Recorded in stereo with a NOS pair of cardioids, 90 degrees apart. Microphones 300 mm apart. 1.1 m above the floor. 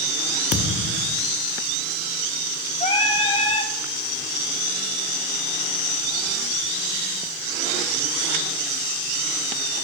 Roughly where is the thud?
Ahead left.